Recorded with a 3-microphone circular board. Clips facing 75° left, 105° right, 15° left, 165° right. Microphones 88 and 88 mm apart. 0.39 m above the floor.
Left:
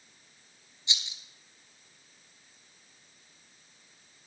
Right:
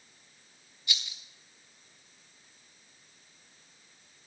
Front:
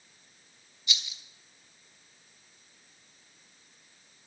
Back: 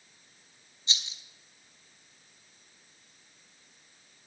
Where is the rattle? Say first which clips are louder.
Even, even; 140° left, 1.1 m.